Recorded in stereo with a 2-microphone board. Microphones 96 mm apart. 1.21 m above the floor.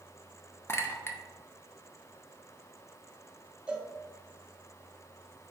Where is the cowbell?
10° right (ahead or behind), 0.6 m.